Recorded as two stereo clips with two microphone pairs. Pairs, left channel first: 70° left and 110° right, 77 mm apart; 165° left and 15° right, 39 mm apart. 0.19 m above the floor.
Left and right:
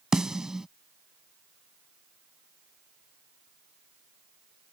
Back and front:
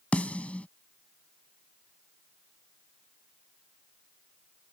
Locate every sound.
0.1 s a snare drum: 170° left